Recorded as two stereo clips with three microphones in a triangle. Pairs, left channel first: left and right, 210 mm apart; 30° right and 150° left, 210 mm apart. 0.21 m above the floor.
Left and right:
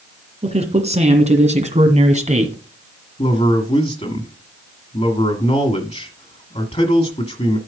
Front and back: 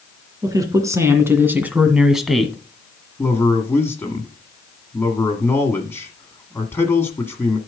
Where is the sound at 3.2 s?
45° left, 1.5 m.